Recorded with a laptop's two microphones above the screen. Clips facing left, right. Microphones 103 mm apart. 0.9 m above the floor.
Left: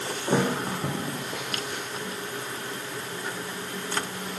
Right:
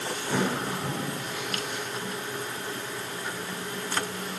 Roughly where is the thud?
Left.